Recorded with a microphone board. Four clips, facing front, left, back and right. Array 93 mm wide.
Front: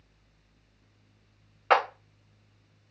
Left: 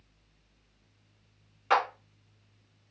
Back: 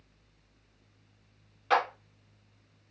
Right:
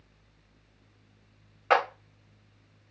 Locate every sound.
1.7 s a clap: 35° right, 1.0 m